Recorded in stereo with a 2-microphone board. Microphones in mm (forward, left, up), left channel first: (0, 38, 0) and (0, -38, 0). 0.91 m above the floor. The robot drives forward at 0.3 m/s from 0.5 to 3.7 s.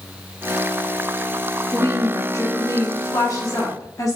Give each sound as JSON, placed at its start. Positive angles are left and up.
{"t": 1.7, "sound": "a woman speaking", "side_deg": 45, "distance_m": 1.1}